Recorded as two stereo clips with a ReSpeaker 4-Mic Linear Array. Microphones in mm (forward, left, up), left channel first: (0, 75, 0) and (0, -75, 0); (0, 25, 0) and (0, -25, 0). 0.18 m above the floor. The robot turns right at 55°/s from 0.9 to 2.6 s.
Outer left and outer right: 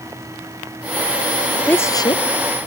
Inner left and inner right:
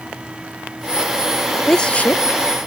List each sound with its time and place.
1.7 s a woman speaking: 10° left; by 2.2 s 40° left